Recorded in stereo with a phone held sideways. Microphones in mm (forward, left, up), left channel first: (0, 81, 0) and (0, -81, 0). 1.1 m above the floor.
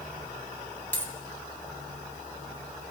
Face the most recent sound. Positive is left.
turn(degrees=10)  # may be behind; listen again after turning